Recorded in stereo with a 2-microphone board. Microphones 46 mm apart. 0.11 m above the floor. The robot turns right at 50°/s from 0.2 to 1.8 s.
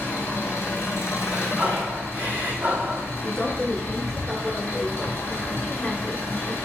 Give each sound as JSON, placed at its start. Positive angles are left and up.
{"t": 0.0, "sound": "an engine running", "azimuth_deg": 55, "distance_m": 1.6}
{"t": 1.2, "sound": "breathing", "side_deg": -5, "distance_m": 1.0}
{"t": 3.1, "sound": "a woman speaking", "side_deg": 5, "distance_m": 1.3}